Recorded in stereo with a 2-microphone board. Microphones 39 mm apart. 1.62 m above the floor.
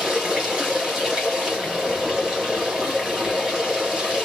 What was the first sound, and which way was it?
Running water, 15° right (ahead or behind).